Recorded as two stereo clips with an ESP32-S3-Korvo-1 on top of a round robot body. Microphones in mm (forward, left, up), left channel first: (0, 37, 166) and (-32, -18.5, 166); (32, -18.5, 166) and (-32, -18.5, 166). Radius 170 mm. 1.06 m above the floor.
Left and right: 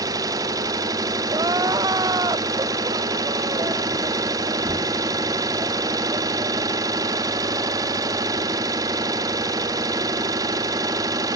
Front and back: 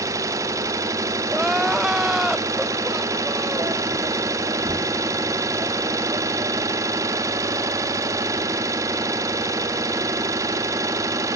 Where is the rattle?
I don't hear a rattle.